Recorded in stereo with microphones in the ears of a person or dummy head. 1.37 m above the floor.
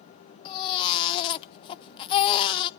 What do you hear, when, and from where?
0.5 s a baby crying: 30° left (ahead or behind), 0.6 m